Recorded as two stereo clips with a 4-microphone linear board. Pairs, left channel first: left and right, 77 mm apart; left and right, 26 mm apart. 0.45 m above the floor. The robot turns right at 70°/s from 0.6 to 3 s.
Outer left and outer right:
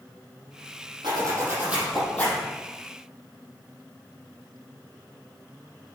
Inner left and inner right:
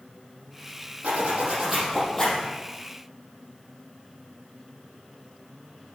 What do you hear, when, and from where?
1.0 s a zipper: 65° right, 5.5 m; by 2.5 s 35° left, 5.5 m